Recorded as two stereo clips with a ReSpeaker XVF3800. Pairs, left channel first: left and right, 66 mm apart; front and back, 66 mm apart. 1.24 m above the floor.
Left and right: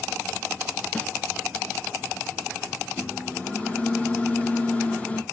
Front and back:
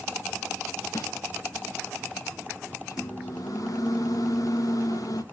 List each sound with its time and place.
0.9 s a snare drum: 20° left, 2.5 m
2.9 s a microwave: 20° left, 1.5 m